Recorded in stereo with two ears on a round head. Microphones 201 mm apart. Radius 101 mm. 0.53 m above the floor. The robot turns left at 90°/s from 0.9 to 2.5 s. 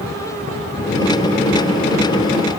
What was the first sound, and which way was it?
Only background noise.